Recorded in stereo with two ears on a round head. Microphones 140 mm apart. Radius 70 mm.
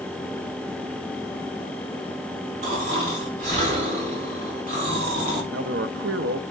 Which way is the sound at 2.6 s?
50° right (ahead or behind).